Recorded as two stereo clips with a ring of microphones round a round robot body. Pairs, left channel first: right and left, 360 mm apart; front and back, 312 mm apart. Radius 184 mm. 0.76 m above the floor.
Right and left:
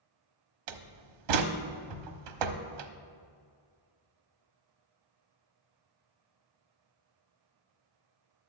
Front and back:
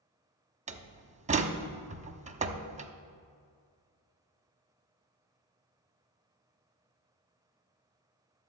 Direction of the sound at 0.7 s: 110° left.